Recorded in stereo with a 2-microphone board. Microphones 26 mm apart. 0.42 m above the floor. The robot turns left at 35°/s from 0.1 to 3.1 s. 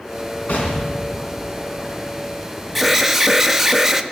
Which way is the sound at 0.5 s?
100° left.